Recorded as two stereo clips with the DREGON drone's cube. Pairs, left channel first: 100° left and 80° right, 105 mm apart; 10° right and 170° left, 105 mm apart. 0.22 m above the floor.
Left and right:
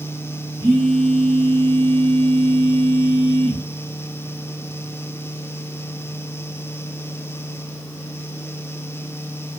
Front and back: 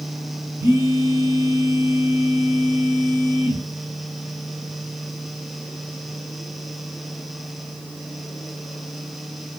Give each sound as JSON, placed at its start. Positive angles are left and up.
{"t": 0.6, "sound": "a phone buzzing", "azimuth_deg": -125, "distance_m": 1.0}